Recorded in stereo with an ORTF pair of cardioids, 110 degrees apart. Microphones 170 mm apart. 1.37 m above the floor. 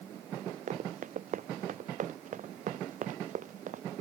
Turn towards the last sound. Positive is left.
turn(degrees=-50)